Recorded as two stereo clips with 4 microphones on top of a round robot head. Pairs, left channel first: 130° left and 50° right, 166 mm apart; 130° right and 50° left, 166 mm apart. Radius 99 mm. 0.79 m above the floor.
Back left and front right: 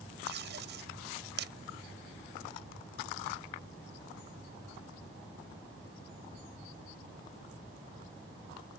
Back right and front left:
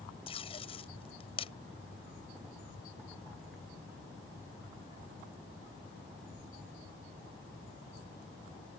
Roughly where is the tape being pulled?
Right.